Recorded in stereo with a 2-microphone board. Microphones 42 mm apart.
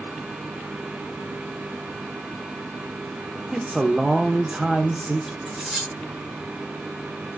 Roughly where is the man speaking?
Centre.